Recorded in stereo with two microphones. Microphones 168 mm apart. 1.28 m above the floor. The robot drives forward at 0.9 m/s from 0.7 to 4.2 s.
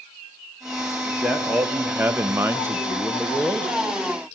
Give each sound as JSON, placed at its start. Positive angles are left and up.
{"t": 1.1, "sound": "a man speaking", "side_deg": -5, "distance_m": 1.4}